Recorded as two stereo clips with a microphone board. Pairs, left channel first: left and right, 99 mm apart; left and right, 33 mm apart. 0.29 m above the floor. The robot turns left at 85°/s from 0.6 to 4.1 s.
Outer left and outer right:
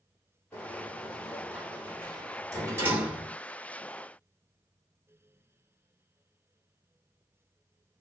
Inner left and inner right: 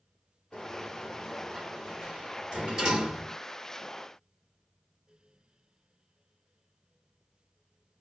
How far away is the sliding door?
About 1.8 m.